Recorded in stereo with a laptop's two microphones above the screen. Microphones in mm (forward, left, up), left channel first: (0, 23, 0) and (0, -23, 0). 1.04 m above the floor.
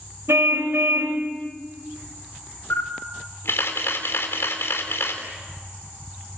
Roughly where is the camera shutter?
Left.